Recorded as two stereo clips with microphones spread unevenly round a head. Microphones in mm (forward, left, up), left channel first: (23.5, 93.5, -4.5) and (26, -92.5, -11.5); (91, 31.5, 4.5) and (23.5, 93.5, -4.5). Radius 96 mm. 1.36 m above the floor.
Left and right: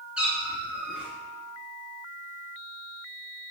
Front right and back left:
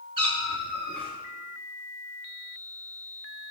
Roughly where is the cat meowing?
Behind.